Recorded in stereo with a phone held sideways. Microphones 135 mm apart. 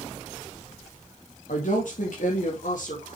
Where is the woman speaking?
75° left (ahead or behind), 2.5 m; by 3.2 s 70° left (ahead or behind), 4.5 m.